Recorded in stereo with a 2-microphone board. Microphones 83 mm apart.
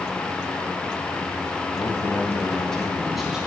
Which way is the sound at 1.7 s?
40° left (ahead or behind).